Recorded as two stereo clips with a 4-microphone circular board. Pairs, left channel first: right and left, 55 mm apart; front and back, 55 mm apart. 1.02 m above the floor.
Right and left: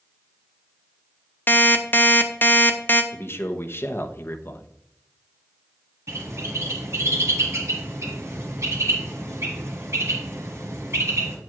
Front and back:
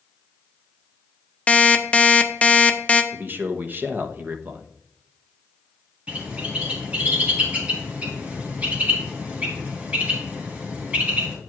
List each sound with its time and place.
1.5 s an alarm clock: 60° right, 0.7 m
3.1 s a man speaking: 130° right, 0.9 m
6.1 s a bird: 115° left, 1.9 m